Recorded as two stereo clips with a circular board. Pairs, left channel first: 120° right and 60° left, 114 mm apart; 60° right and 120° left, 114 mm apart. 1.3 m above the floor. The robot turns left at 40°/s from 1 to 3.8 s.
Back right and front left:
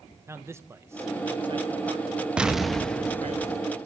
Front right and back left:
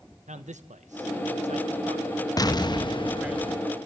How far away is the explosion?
About 0.7 m.